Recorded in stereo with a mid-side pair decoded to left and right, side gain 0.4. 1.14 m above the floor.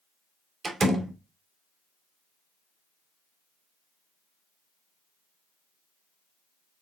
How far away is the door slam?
About 2.5 m.